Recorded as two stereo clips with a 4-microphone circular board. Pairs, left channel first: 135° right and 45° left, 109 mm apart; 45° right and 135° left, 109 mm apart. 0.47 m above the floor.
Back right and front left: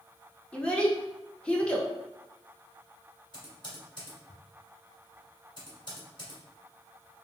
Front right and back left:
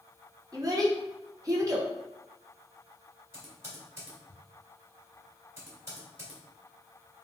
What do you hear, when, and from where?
0.5 s a child speaking: 150° left, 0.7 m
3.3 s typing on a keyboard: 165° right, 1.6 m